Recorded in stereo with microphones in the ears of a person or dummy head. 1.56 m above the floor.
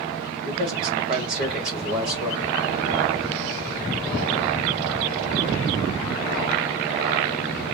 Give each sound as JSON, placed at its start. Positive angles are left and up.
{"t": 0.4, "sound": "a man speaking", "side_deg": -45, "distance_m": 1.9}